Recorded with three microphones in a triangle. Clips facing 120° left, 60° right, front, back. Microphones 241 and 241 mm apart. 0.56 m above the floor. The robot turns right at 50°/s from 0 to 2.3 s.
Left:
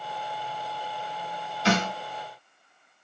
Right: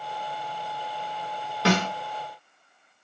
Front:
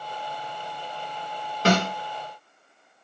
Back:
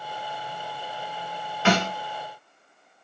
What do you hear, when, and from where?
1.6 s a snare drum: 50° right, 0.9 m; by 1.9 s 35° right, 0.9 m